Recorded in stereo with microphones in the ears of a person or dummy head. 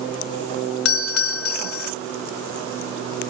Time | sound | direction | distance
0.8 | a doorbell | 85° left | ?